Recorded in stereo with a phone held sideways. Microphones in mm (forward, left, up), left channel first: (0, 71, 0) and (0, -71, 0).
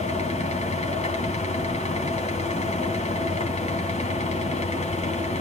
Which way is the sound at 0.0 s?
55° left (ahead or behind).